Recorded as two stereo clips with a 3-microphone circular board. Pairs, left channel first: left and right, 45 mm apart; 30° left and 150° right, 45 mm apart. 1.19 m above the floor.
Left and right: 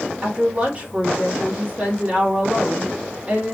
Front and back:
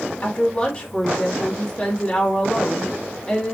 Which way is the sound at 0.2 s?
30° right.